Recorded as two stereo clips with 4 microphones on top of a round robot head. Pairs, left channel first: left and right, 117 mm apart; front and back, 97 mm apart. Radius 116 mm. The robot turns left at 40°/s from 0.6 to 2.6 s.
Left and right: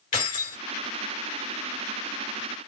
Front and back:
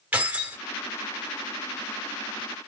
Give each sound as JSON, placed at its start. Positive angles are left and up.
{"t": 0.1, "sound": "keys jangling", "azimuth_deg": 105, "distance_m": 2.5}